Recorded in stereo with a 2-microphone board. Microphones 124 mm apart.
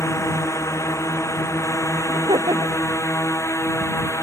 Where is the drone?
20° left (ahead or behind).